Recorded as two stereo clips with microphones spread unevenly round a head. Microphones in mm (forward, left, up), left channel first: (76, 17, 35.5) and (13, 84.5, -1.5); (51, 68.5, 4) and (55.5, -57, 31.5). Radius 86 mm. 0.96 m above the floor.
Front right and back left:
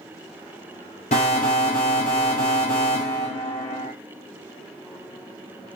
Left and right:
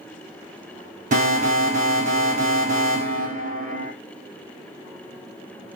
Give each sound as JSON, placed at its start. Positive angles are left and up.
{"t": 1.1, "sound": "an alarm", "azimuth_deg": -75, "distance_m": 4.0}